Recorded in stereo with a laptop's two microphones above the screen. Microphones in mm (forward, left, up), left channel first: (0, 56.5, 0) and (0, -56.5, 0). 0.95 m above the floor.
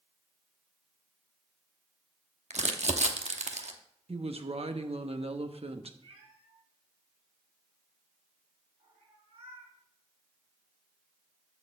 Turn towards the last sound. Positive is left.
turn(degrees=-55)  # may be behind; listen again after turning